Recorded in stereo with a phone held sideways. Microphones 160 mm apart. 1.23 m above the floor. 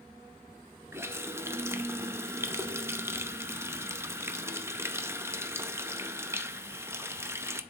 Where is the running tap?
15° right (ahead or behind), 0.6 m.